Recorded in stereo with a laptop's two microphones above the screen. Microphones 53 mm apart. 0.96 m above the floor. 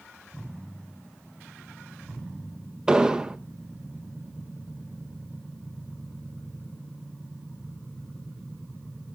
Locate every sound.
2.9 s an explosion: 15° right (ahead or behind), 0.7 m